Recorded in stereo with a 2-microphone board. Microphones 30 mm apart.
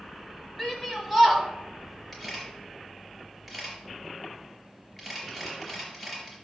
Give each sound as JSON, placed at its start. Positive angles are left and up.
{"t": 0.6, "sound": "a shout", "side_deg": 0, "distance_m": 2.5}
{"t": 2.1, "sound": "a camera shutter", "side_deg": 0, "distance_m": 4.0}